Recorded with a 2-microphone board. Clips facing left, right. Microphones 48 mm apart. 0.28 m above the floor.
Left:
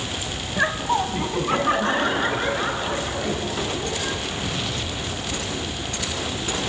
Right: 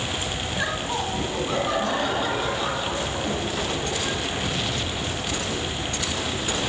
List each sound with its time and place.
0.6 s laughter: 30° left (ahead or behind), 1.8 m; by 4.2 s 40° left (ahead or behind), 6.5 m